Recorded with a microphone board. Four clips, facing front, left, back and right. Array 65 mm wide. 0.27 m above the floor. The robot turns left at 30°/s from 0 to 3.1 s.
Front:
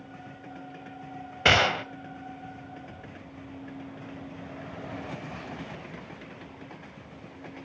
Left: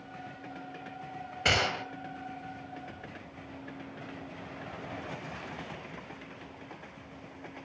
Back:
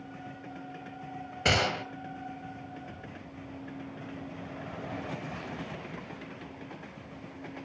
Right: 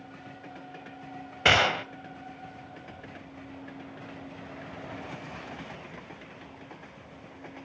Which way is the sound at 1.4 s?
35° right.